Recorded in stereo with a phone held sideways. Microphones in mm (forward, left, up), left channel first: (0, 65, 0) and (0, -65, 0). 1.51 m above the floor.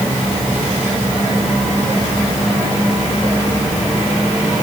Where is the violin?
No violin in this recording.